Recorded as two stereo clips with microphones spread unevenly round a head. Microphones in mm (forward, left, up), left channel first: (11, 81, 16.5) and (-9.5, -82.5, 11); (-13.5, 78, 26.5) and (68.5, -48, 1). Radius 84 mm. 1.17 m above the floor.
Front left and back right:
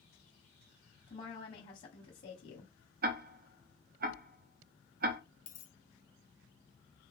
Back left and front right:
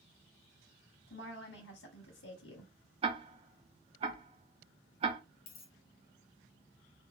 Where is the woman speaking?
135° left, 0.9 m.